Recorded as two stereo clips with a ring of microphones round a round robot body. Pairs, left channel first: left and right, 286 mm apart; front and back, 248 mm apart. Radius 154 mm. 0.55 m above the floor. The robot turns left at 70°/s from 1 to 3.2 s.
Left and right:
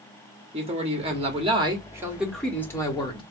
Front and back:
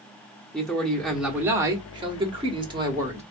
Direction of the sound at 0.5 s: 85° right.